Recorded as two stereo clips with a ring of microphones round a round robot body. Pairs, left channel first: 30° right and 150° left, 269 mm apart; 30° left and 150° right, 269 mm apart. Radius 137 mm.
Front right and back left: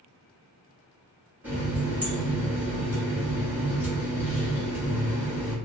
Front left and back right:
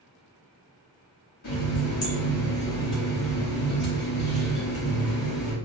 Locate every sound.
1.4 s a running tap: 65° left, 1.3 m